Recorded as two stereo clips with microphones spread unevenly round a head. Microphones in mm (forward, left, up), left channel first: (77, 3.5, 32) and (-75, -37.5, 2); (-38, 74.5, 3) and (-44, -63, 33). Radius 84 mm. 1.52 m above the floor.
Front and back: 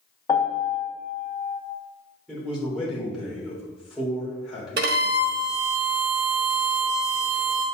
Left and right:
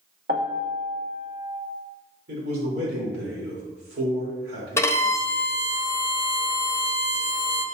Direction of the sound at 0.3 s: 50° right.